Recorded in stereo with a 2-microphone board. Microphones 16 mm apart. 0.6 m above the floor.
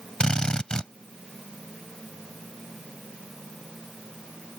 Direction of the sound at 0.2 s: 55° left (ahead or behind).